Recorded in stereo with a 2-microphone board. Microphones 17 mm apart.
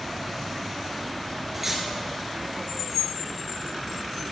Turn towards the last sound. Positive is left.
turn(degrees=-20)  # may be behind; listen again after turning